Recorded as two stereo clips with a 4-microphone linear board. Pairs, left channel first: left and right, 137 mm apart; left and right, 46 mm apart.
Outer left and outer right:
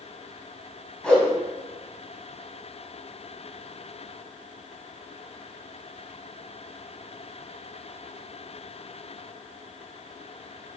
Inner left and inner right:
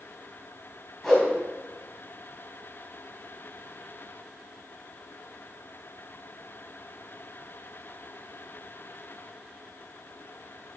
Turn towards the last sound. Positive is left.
turn(degrees=10)  # may be behind; listen again after turning